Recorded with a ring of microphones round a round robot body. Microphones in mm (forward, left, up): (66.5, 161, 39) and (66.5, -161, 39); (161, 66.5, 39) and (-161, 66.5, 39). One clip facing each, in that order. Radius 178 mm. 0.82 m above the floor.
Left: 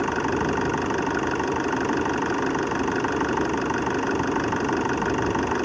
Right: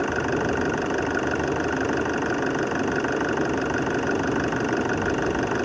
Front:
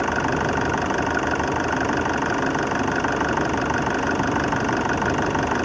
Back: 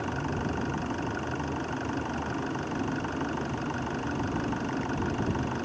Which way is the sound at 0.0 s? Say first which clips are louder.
Even, front 8 dB; 10° left.